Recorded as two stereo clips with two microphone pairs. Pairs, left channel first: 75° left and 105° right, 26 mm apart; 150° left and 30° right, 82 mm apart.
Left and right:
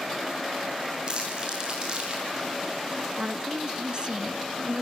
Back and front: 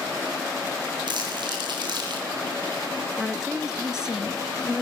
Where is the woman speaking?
105° right, 1.6 m.